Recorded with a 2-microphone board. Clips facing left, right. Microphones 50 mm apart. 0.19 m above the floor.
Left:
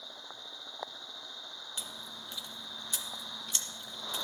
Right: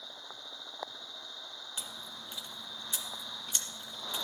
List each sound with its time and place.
1.8 s chewing: 20° right (ahead or behind), 1.8 m